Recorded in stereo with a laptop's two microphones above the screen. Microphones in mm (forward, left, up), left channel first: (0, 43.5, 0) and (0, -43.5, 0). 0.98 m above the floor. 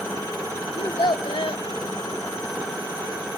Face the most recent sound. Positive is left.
turn(degrees=80)